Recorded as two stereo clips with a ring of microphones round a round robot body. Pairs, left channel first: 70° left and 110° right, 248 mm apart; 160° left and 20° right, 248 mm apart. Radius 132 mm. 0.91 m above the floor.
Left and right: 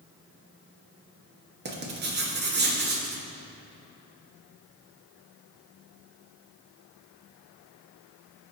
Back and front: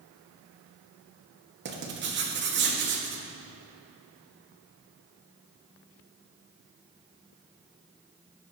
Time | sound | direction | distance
1.6 | writing | 65° right | 1.9 m